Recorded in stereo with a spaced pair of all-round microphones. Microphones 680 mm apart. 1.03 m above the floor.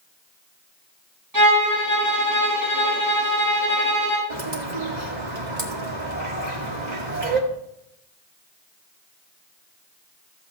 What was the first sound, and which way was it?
A violin, 25° right (ahead or behind).